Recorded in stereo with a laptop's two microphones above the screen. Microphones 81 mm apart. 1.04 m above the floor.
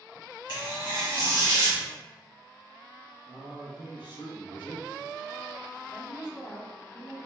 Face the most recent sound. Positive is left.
turn(degrees=30)  # may be behind; listen again after turning